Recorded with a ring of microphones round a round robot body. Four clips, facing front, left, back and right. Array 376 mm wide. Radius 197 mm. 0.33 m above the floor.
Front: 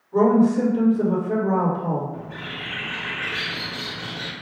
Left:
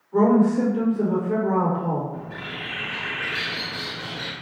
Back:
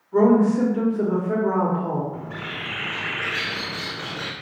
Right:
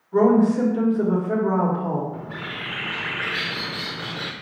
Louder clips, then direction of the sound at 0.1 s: Right 1 dB, even; 125° right.